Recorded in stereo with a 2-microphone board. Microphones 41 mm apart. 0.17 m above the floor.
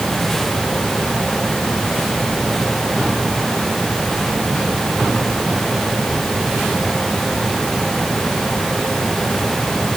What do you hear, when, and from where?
Only background noise.